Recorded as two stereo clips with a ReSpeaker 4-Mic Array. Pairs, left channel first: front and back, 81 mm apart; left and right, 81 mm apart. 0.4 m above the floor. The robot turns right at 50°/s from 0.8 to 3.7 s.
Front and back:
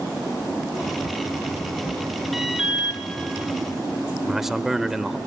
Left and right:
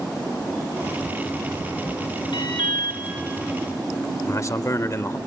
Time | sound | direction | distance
2.3 | an alarm | 85° left | 4 m
4.3 | a man speaking | 100° left | 1.0 m